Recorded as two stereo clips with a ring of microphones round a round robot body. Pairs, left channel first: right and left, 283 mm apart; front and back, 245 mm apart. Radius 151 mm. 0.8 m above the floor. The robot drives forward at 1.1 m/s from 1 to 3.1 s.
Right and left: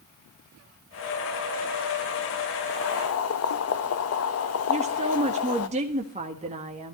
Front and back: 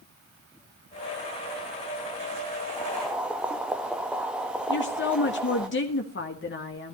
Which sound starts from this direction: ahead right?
Boiling, at 2.7 s.